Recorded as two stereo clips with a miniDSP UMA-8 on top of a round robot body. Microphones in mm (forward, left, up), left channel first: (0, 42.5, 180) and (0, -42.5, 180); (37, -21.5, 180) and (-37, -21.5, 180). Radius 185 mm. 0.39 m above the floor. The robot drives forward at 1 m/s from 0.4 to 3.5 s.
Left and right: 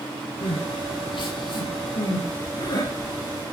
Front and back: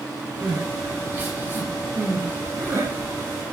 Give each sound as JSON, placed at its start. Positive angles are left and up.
{"t": 0.4, "sound": "crying", "azimuth_deg": 110, "distance_m": 6.0}